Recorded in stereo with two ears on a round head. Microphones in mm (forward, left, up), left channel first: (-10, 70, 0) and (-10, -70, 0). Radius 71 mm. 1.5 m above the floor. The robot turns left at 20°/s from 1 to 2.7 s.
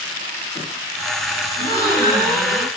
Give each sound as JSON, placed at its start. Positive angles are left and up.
{"t": 1.6, "sound": "a gasp", "side_deg": 20, "distance_m": 1.2}